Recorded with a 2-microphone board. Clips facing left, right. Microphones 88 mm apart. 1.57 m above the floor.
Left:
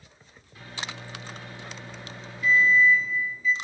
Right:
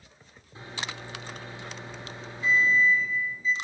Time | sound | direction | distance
0.6 | a microwave | 25° right (ahead or behind) | 4 m